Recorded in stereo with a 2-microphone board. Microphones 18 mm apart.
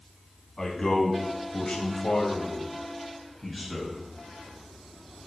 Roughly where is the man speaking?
Left.